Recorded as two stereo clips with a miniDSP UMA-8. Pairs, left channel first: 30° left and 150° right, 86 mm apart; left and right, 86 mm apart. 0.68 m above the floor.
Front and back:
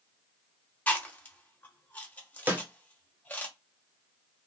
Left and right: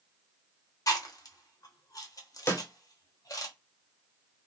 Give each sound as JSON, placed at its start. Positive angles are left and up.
{"t": 0.9, "sound": "chewing", "azimuth_deg": 90, "distance_m": 1.1}
{"t": 2.5, "sound": "a snare drum", "azimuth_deg": 145, "distance_m": 1.0}